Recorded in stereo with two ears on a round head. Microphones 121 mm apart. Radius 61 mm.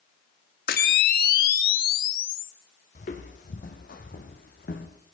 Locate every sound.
0.7 s a camera shutter: 75° left (ahead or behind), 1.4 m
3.0 s footsteps: 60° left (ahead or behind), 2.5 m; by 4.9 s 75° left (ahead or behind), 3 m